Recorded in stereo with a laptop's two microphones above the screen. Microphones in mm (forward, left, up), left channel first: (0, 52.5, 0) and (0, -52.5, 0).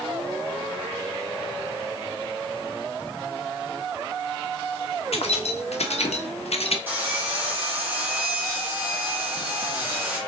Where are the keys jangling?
70° left (ahead or behind), 1.4 m; by 6.8 s 65° left (ahead or behind), 0.8 m.